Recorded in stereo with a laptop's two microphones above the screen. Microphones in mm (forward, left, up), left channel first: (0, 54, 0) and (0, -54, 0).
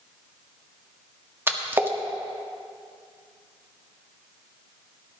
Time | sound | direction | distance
1.5 | a splash | 20° right (ahead or behind) | 1.3 m